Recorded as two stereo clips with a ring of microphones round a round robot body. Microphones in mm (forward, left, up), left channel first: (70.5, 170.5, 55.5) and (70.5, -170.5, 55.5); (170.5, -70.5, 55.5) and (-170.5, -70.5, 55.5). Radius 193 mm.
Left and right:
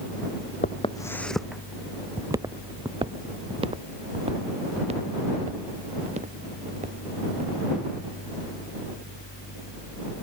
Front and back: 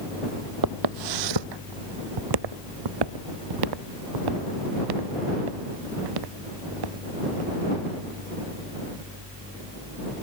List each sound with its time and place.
0.6 s footsteps: 155° left; by 7.5 s 165° right